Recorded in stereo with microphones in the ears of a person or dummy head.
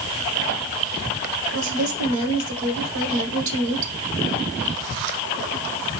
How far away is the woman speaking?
About 1.6 m.